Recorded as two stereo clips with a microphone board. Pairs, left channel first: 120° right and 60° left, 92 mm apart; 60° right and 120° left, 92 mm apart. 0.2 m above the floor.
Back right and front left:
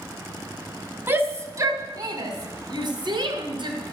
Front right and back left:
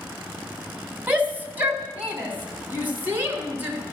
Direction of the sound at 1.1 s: 70° left.